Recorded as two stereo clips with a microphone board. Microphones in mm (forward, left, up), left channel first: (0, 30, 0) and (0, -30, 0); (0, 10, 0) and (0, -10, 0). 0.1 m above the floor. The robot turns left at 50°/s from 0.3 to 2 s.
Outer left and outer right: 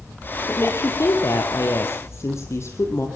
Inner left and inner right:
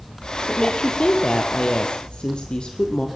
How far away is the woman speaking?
About 3 m.